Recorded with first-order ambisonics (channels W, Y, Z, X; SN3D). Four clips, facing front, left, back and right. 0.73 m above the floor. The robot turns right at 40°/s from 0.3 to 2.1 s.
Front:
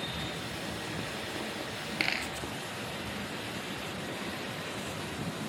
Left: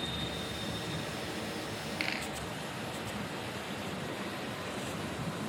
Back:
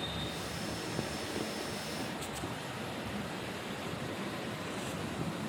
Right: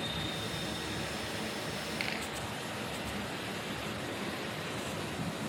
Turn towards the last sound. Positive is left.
turn(degrees=10)